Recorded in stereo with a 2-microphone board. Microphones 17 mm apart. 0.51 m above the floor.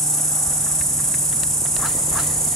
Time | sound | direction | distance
0.0 | an insect | 30° left (ahead or behind) | 0.9 m